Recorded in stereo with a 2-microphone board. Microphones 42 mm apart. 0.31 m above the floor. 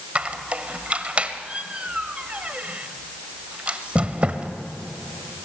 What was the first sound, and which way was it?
A squeak, 30° right (ahead or behind).